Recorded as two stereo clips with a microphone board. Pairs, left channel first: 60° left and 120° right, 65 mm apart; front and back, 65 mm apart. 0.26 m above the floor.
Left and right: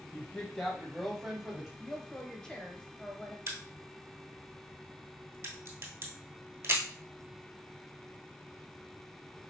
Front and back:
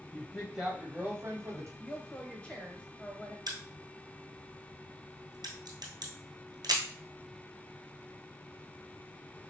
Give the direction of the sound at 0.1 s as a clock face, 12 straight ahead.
11 o'clock.